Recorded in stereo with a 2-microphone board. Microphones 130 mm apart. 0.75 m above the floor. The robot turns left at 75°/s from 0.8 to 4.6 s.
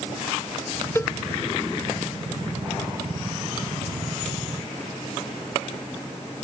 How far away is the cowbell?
About 0.6 m.